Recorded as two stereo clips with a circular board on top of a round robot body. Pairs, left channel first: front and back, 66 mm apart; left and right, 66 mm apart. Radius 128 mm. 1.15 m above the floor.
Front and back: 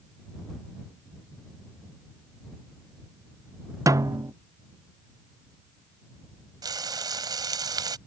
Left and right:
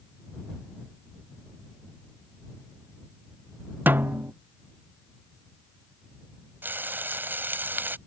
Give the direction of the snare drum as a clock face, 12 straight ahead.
5 o'clock.